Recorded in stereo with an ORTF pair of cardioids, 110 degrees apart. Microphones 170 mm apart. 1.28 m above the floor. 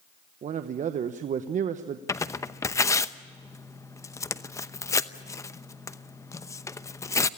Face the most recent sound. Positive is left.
turn(degrees=20)